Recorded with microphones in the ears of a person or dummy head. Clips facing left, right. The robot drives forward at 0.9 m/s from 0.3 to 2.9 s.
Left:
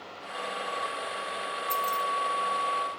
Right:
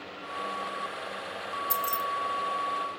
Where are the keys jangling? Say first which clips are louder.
Left 3 dB; 10° right (ahead or behind), 0.7 m; by 2.0 s 15° right (ahead or behind), 0.6 m.